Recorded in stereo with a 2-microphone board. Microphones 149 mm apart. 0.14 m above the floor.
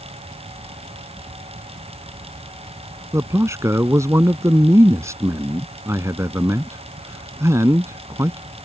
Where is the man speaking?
20° right (ahead or behind).